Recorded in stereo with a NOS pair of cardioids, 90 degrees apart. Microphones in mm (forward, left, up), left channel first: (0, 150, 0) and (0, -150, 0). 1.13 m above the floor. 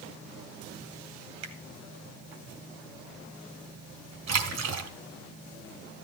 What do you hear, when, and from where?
1.4 s a finger snap: 65° right, 2.5 m
4.3 s a splash: 60° right, 2.5 m